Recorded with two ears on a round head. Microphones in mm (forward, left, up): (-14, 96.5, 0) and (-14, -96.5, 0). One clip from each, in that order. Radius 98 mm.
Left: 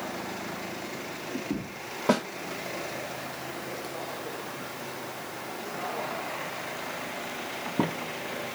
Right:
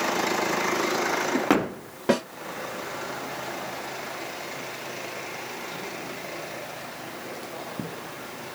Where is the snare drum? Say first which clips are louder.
Right 2 dB; centre (ahead or behind), 3 m.